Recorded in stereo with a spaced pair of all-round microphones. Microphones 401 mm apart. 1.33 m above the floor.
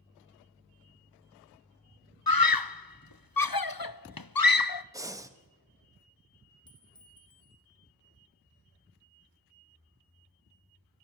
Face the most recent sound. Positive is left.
turn(degrees=10)  # may be behind; listen again after turning